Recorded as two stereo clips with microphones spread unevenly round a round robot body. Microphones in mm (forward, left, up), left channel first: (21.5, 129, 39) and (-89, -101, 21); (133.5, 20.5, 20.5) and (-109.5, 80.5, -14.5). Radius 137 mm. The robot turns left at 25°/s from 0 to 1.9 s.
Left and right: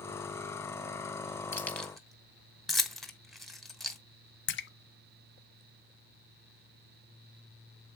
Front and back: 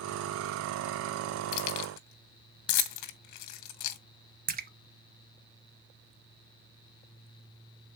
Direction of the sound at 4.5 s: 110° left.